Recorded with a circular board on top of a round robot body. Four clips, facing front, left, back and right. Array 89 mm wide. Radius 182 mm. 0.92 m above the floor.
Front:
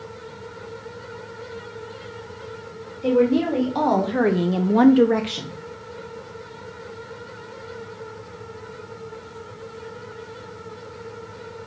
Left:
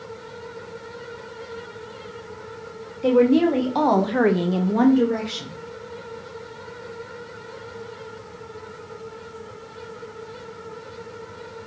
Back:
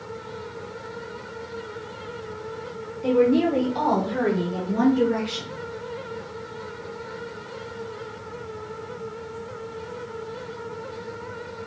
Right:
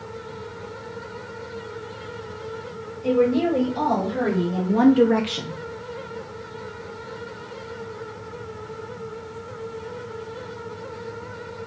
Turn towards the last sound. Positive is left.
turn(degrees=-65)